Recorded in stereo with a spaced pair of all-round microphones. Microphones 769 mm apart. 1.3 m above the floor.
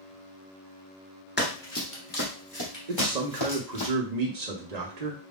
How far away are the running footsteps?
About 1.3 m.